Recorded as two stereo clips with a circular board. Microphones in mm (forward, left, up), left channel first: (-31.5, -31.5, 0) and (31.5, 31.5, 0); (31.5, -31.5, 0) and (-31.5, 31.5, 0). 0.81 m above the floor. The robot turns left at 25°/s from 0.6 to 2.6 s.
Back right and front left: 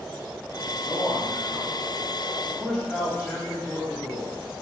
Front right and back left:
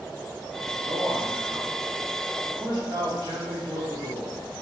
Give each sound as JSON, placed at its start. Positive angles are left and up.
{"t": 0.8, "sound": "a man speaking", "azimuth_deg": 180, "distance_m": 2.0}